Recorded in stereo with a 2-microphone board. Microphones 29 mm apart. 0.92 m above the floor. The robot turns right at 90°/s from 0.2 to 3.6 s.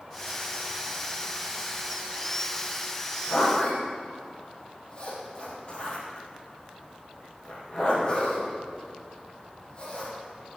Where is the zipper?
65° left (ahead or behind), 5.5 m; by 10.6 s 35° left (ahead or behind), 5.5 m.